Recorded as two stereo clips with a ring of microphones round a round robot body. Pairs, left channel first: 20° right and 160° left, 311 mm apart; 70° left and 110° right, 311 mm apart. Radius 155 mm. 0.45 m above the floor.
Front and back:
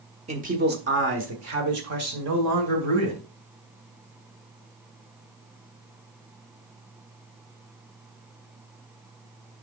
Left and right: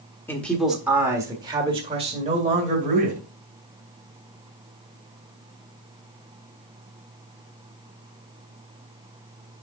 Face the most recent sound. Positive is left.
turn(degrees=-175)